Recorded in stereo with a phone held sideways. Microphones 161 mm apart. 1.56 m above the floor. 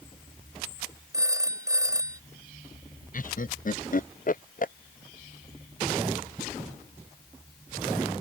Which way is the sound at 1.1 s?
20° right (ahead or behind).